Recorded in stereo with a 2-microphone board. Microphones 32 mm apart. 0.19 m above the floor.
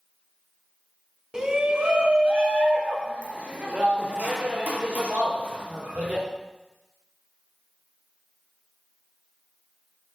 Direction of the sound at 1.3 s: 20° right (ahead or behind).